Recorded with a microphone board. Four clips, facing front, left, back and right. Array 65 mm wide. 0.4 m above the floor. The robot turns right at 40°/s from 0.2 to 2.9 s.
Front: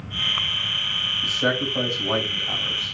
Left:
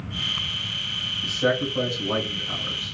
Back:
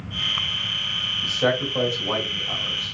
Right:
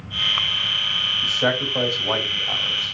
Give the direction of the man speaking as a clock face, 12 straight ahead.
4 o'clock.